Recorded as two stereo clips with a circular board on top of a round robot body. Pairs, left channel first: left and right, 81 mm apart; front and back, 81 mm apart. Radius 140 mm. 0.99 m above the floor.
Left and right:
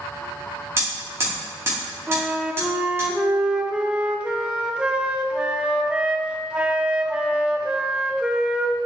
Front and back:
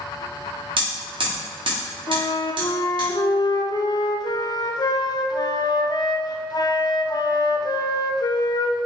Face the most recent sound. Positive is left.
turn(degrees=-10)